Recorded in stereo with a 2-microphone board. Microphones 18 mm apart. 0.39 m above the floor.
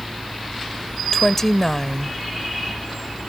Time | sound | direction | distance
1.1 | a woman speaking | 30° left (ahead or behind) | ?